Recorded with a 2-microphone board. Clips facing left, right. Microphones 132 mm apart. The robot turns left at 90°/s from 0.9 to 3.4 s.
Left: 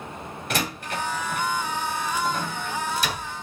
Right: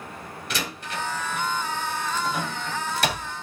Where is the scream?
I don't hear a scream.